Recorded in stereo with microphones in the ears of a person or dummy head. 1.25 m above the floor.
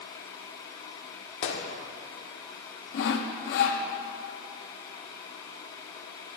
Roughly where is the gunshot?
Left.